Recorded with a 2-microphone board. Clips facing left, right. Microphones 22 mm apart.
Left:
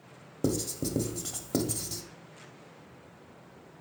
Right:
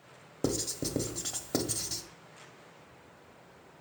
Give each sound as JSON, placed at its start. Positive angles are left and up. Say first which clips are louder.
{"t": 0.4, "sound": "writing", "louder": "left 2 dB", "side_deg": -15, "distance_m": 0.8}